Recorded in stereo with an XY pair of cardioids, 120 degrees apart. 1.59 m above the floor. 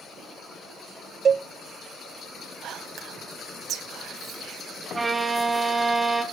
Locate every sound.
1.2 s a cowbell: 40° right, 0.5 m
2.6 s whispering: 60° right, 1.7 m
4.9 s a violin: 15° right, 2 m